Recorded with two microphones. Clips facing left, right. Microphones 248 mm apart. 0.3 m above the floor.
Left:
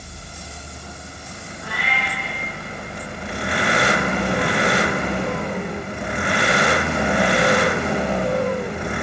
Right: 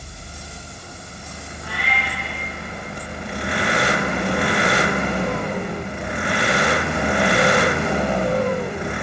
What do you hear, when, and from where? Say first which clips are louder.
1.6 s a cat meowing: even; 45° left (ahead or behind), 6 m